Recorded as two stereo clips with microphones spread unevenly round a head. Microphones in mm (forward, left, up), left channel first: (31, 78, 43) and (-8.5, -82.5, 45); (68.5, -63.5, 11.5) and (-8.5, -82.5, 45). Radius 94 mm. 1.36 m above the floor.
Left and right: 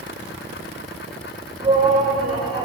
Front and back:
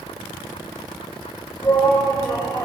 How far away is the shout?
About 2.0 m.